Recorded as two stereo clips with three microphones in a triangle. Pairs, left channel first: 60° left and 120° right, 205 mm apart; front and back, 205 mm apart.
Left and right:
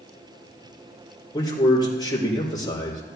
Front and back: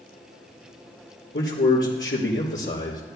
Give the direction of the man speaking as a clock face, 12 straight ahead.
12 o'clock.